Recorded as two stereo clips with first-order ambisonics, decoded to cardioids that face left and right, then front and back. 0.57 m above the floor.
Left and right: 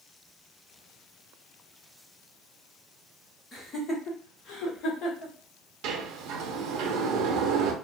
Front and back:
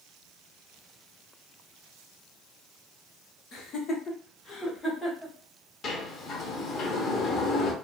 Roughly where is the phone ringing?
No phone ringing in this recording.